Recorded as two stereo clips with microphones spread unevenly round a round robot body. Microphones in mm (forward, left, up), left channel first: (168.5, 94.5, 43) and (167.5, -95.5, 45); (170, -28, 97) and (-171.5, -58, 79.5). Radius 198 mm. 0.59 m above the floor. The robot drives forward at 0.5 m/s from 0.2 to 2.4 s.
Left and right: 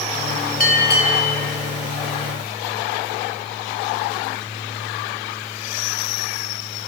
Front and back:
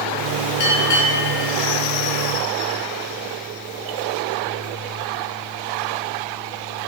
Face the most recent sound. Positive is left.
turn(degrees=90)